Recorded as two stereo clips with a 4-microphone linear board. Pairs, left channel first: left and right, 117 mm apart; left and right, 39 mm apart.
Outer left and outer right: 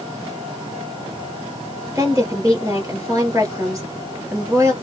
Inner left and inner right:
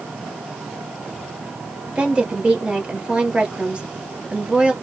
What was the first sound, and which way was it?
A woman speaking, 30° right (ahead or behind).